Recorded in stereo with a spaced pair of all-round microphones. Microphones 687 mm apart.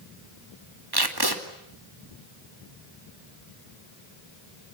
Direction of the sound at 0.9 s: 35° right (ahead or behind).